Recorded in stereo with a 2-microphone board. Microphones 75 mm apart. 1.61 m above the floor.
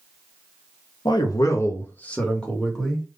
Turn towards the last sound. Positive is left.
turn(degrees=0)  # may be behind; listen again after turning